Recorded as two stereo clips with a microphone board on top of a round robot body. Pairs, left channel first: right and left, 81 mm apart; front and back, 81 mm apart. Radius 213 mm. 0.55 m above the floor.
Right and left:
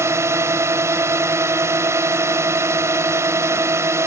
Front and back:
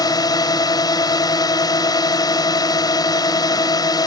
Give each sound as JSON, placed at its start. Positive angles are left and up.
{"t": 0.0, "sound": "a drone", "azimuth_deg": 35}